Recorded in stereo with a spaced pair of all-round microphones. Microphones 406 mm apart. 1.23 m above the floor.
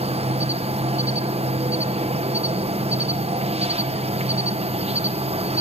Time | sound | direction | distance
0.0 | an insect | 15° right (ahead or behind) | 0.8 m